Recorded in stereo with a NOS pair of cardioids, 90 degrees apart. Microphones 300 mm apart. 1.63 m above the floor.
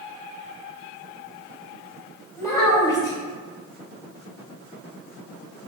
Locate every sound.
2.4 s a child speaking: 10° left, 1.3 m